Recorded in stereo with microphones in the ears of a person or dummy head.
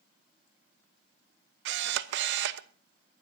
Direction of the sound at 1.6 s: 75° right (ahead or behind).